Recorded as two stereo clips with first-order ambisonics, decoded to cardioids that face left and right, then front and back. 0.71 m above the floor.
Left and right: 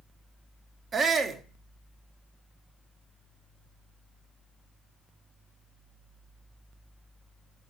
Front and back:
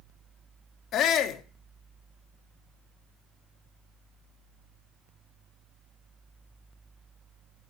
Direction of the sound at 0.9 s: 30° right.